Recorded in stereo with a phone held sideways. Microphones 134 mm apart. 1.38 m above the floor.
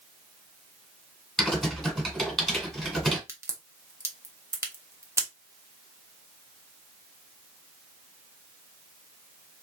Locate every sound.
1.4 s typing on a keyboard: centre (ahead or behind), 1.5 m
3.3 s a crack: 20° right (ahead or behind), 0.7 m